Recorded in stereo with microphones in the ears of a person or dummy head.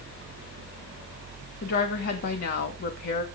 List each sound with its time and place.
1.6 s a woman speaking: 50° left (ahead or behind), 2 m